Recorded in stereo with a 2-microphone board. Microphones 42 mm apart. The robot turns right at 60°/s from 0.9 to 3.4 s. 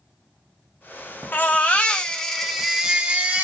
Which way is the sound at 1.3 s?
105° left.